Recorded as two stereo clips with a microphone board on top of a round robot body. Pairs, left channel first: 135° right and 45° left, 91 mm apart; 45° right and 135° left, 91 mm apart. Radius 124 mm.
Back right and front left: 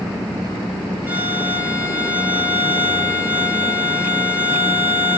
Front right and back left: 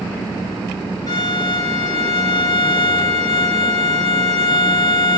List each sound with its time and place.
1.1 s a violin: 20° right, 1.4 m